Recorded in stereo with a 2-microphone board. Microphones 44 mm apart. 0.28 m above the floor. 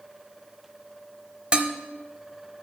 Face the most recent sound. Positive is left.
turn(degrees=-25)  # may be behind; listen again after turning